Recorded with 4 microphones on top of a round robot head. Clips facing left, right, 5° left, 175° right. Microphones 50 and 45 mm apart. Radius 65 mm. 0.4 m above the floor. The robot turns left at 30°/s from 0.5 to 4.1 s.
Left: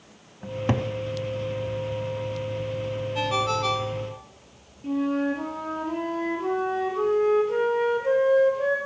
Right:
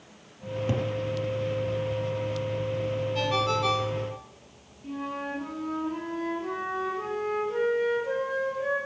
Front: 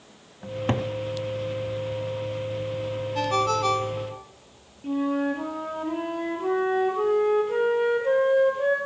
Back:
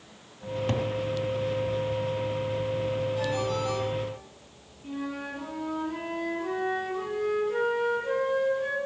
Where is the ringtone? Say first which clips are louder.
Left 2 dB, front 5 dB; 15° left, 1.8 m; by 4.2 s 15° right, 1.8 m.